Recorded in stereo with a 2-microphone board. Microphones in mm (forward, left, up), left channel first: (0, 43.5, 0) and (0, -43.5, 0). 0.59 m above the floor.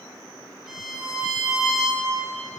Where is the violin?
5° right (ahead or behind), 0.9 m.